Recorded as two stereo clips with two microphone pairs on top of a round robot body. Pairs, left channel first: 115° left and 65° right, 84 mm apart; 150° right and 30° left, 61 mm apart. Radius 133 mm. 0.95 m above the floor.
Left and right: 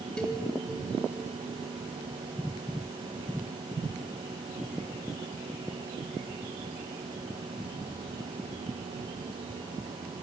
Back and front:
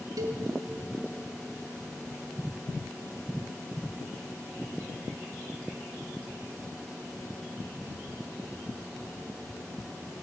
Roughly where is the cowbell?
Ahead left.